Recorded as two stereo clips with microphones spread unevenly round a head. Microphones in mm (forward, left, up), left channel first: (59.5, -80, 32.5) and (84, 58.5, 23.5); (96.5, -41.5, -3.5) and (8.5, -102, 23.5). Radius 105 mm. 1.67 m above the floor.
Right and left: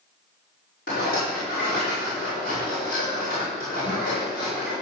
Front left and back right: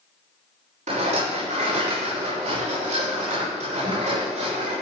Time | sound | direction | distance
0.9 | a rattle | 150° right | 6 m